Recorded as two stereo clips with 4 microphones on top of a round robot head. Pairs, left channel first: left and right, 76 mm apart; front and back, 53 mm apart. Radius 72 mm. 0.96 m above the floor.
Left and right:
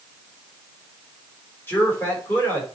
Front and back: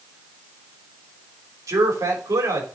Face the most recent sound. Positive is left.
turn(degrees=155)